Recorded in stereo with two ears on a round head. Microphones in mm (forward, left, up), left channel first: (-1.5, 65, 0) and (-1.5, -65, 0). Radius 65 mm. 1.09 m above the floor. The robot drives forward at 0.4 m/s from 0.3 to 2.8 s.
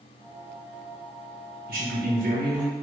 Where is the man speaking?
65° right (ahead or behind), 1.5 m; by 2.8 s 55° right (ahead or behind), 1.7 m.